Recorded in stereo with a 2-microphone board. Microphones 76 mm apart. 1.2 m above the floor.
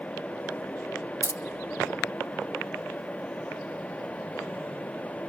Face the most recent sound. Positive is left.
turn(degrees=-40)  # may be behind; listen again after turning